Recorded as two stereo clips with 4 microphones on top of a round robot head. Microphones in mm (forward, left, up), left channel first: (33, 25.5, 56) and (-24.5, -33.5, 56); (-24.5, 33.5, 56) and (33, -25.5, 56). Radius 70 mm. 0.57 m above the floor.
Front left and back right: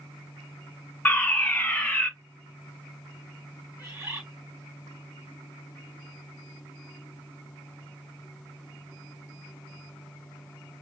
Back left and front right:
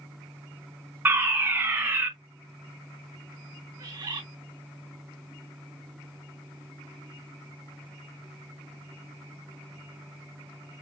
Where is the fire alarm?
10° right, 1.7 m.